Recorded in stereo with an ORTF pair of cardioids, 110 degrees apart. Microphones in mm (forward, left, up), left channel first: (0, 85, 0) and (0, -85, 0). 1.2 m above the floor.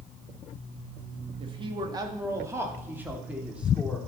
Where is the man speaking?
35° right, 1.6 m; by 4.1 s 5° right, 2.5 m.